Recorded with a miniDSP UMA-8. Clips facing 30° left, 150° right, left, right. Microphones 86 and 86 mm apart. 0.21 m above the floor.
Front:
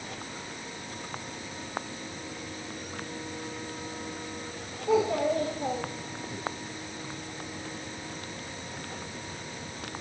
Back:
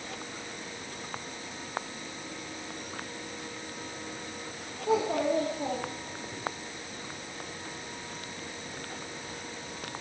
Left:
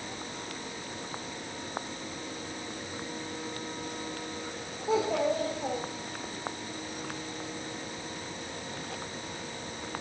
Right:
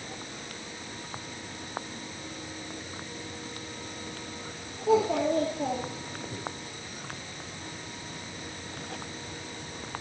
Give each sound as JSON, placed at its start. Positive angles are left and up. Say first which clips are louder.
{"t": 4.9, "sound": "a child speaking", "louder": "front 2 dB, right 3 dB", "azimuth_deg": -90, "distance_m": 7.5}